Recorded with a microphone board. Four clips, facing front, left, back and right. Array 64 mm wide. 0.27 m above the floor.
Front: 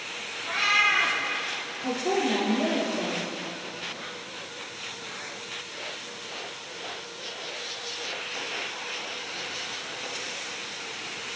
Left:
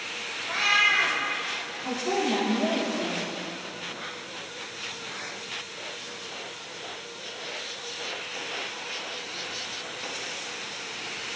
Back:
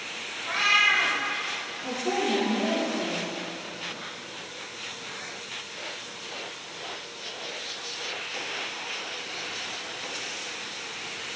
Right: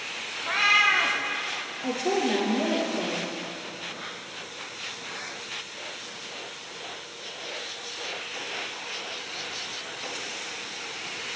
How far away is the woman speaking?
About 5.5 m.